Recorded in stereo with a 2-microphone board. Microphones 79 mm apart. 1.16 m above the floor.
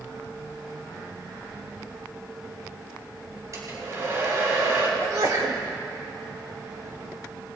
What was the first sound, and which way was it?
A hair dryer, 40° right (ahead or behind).